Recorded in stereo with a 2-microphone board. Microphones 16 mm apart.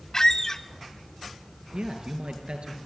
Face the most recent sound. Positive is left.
turn(degrees=-70)  # may be behind; listen again after turning